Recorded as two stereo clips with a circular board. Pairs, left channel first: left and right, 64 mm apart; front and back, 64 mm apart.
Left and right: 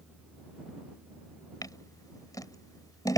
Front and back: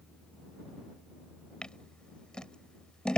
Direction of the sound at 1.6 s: 75° left.